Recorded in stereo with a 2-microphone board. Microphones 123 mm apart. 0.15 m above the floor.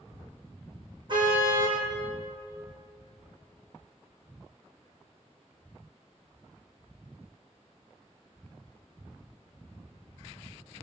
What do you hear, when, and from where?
1.1 s a car horn: 40° right (ahead or behind), 3.5 m